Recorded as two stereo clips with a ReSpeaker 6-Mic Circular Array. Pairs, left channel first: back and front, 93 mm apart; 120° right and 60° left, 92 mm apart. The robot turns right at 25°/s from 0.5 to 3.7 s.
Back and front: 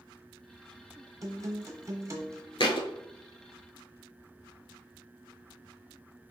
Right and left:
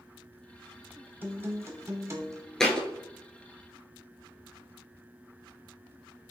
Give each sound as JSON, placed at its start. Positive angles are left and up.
{"t": 1.2, "sound": "a guitar", "azimuth_deg": 5, "distance_m": 0.8}
{"t": 2.6, "sound": "a thud", "azimuth_deg": 155, "distance_m": 0.7}